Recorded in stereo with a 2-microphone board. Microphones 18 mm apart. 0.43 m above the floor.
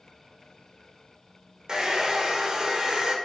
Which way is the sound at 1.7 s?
35° right (ahead or behind).